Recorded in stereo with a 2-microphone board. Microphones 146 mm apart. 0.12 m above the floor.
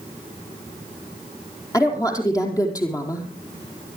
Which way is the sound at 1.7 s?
20° left (ahead or behind).